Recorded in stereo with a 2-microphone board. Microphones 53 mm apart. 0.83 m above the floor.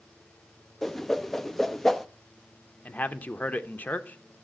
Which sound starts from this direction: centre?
A whoosh, at 0.8 s.